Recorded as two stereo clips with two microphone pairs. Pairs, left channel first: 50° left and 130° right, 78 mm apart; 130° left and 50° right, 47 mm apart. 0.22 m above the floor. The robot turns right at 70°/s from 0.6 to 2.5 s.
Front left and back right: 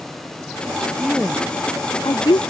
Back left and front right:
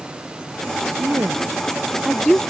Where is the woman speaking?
45° right; by 2.4 s 55° left.